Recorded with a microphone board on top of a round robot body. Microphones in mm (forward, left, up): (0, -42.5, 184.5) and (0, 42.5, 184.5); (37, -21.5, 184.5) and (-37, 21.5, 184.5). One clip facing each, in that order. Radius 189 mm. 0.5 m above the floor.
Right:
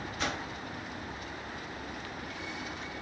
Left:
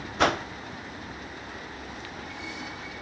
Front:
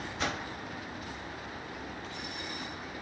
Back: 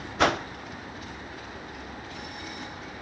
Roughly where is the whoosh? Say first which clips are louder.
Left 12 dB, back 12 dB; behind left.